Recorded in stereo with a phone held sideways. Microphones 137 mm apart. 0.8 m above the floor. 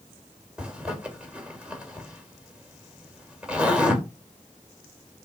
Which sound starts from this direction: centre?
A zipper, at 0.6 s.